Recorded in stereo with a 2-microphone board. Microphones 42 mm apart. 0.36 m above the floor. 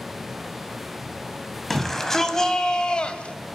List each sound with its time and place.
1.7 s a shout: 5° left (ahead or behind), 3 m; by 3.4 s 30° left (ahead or behind), 2.5 m